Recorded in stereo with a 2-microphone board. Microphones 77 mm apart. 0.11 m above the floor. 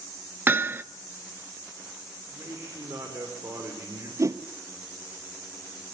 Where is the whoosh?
40° right (ahead or behind), 0.8 m.